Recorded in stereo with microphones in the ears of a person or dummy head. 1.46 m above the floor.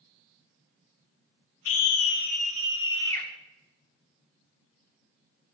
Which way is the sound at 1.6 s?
85° left.